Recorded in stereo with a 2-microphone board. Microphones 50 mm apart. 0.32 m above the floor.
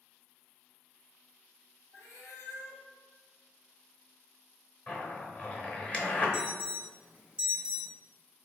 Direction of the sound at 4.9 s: 25° left (ahead or behind).